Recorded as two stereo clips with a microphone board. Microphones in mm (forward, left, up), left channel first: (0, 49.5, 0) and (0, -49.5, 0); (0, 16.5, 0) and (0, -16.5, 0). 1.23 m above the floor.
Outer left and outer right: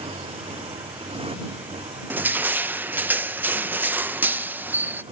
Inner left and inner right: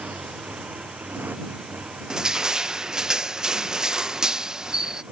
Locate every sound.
0.0 s a motorcycle: 75° right (ahead or behind)
2.1 s crushing: 20° right (ahead or behind)